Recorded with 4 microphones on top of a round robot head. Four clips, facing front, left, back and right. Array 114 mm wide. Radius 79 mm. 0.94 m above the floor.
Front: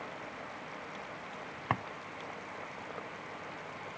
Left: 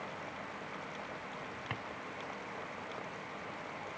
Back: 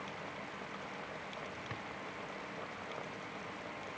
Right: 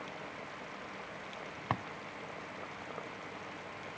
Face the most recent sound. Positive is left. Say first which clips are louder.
# right 9 dB, front 11 dB
turn(degrees=-30)